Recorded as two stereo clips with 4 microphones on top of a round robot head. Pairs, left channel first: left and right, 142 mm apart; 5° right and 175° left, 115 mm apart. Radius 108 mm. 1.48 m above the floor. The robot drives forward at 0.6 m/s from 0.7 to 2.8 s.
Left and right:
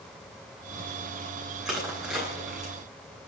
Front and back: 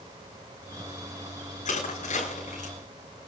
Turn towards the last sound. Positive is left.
turn(degrees=-5)